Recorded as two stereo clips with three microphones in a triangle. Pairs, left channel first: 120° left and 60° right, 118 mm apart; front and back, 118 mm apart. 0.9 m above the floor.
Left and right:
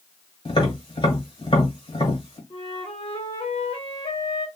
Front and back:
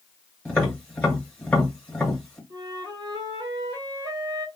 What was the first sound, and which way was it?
Tapping, 80° left.